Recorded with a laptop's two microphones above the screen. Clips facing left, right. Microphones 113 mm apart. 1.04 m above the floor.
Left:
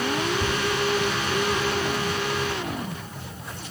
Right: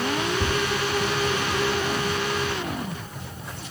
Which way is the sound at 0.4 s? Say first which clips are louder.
Right 1 dB; 20° right (ahead or behind).